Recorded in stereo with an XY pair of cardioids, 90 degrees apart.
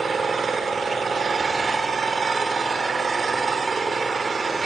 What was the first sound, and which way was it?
An engine running, 40° right.